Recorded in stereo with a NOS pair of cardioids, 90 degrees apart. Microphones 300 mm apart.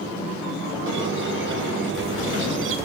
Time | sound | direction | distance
0.9 | a squeak | 40° right | 2.5 m